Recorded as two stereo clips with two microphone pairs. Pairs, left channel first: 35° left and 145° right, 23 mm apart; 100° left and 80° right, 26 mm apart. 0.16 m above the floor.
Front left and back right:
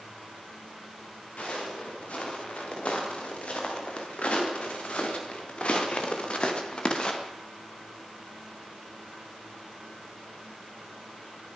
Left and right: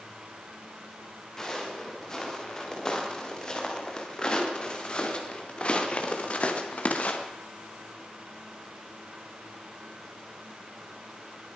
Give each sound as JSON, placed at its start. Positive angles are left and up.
{"t": 1.4, "sound": "footsteps", "azimuth_deg": 30, "distance_m": 8.5}